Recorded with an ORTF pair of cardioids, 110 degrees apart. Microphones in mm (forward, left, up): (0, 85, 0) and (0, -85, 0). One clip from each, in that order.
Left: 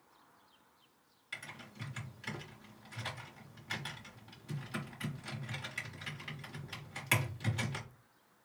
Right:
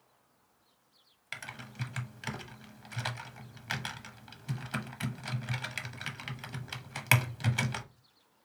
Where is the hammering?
No hammering in this recording.